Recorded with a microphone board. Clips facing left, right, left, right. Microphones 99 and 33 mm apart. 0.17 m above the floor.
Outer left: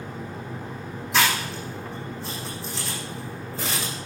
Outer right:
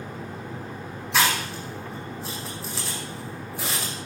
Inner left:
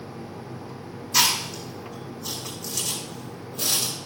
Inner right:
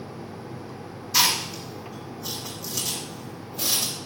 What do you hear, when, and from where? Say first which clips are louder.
1.1 s chewing: even, even; centre (ahead or behind), 9 m